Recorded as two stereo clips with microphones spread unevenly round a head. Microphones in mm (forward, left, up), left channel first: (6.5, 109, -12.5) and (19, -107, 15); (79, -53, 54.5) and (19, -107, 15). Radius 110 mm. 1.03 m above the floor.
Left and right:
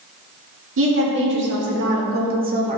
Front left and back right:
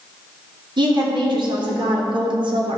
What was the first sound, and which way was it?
A woman speaking, 125° right.